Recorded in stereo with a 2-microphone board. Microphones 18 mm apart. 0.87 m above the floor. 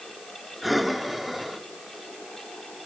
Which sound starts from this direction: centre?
Breathing, at 0.6 s.